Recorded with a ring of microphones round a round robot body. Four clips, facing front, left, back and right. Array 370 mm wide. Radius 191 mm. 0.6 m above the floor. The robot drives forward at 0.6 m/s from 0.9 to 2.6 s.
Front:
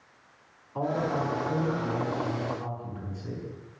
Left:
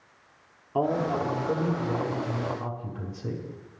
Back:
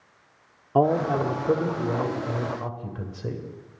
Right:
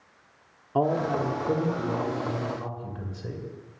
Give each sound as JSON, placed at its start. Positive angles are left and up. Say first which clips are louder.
{"t": 0.8, "sound": "a man speaking", "louder": "right 1 dB, back 7 dB", "azimuth_deg": -170, "distance_m": 1.4}